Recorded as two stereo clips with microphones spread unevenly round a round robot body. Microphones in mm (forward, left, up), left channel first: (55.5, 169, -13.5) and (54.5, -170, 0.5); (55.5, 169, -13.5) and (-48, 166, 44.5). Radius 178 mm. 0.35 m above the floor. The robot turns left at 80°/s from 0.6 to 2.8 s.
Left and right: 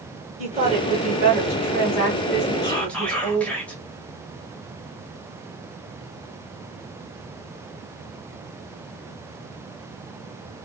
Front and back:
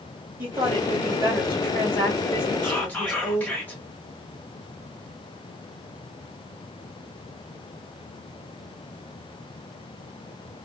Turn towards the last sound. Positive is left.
turn(degrees=5)